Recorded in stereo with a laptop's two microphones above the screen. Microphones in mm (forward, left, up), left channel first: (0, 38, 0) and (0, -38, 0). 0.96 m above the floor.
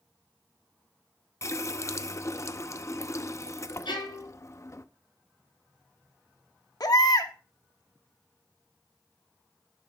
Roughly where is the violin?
Left.